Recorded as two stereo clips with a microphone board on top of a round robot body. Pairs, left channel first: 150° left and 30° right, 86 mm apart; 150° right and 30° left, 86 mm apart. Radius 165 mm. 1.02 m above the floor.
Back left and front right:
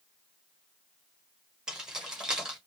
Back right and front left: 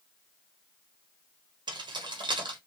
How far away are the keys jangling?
About 1.4 m.